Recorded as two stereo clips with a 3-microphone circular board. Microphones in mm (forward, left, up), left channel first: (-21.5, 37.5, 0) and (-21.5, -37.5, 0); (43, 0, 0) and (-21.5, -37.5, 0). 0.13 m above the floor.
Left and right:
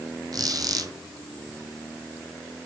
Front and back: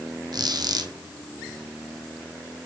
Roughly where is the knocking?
I don't hear knocking.